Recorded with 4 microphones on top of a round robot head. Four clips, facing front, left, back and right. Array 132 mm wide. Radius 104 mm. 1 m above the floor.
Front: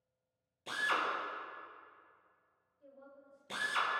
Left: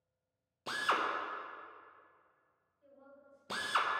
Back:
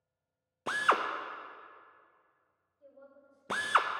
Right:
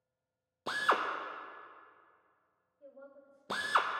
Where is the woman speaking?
105° right, 3.5 m.